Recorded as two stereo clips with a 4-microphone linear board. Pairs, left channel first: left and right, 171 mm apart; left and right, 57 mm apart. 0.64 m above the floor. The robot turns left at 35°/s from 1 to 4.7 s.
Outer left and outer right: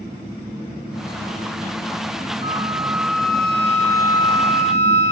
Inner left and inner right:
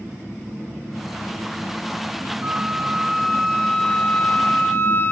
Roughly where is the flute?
Behind right.